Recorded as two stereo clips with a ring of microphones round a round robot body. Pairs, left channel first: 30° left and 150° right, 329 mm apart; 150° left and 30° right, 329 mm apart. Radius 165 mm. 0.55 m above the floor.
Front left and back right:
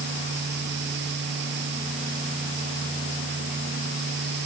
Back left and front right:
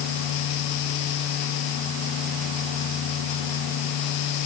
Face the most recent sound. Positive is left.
No sound to turn to.